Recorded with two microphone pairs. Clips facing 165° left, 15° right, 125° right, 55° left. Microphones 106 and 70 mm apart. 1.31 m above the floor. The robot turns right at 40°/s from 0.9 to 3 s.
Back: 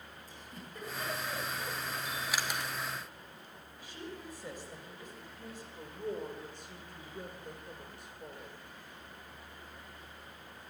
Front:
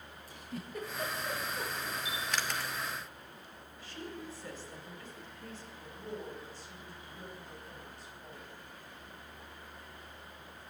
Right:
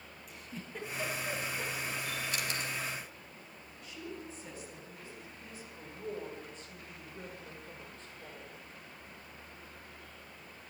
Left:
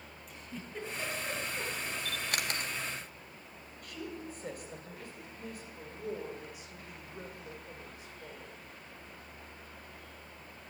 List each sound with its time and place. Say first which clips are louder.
0.3 s a giggle: front 8 dB, even; 35° right, 10 m; by 1.9 s 10° left, 10 m
2.0 s a camera shutter: even, left 1 dB; 70° left, 3 m; by 2.7 s 100° left, 3 m
3.8 s a woman speaking: front 1 dB, left 2 dB; 90° left, 7 m
5.8 s a woman speaking: back 6 dB, left 1 dB; 135° left, 6.5 m